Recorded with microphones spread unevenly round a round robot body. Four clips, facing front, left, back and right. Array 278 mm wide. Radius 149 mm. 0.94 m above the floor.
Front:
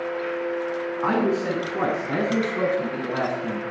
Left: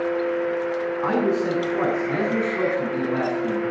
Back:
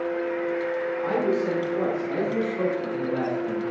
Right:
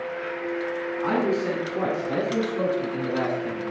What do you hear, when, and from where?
1.0 s a man speaking: 20° left, 8.5 m; by 3.6 s 30° left, 8.5 m